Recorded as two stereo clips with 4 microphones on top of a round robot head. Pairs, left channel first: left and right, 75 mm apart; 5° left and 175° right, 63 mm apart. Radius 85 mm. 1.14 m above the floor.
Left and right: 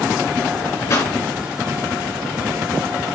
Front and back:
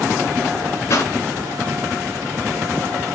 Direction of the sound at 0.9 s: 45° left.